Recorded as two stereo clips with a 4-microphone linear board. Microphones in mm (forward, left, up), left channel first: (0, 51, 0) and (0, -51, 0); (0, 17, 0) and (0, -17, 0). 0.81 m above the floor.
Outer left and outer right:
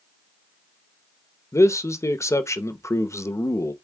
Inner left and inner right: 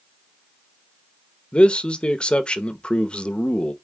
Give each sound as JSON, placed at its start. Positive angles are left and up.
{"t": 1.5, "sound": "a man speaking", "side_deg": 30, "distance_m": 0.8}